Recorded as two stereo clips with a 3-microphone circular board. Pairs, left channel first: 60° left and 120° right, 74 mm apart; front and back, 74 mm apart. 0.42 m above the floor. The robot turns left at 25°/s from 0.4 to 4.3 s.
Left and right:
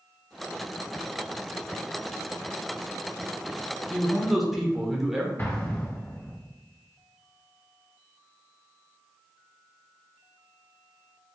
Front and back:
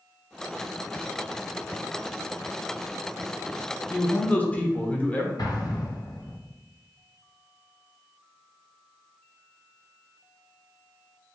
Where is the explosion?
5° left, 1.2 m.